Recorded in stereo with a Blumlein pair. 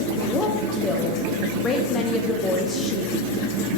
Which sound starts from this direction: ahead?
A woman speaking, at 0.2 s.